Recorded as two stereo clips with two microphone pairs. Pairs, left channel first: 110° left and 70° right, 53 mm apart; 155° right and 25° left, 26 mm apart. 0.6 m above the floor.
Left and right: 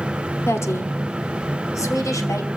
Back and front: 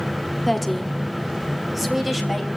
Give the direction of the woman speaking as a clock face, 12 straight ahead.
8 o'clock.